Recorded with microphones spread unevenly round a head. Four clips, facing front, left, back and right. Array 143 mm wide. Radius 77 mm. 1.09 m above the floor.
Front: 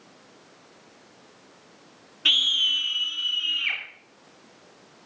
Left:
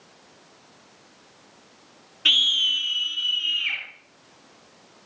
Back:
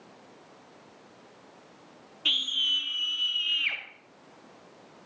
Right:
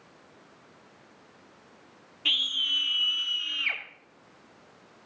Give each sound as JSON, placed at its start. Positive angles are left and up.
{"t": 2.2, "sound": "a scream", "azimuth_deg": 15, "distance_m": 1.0}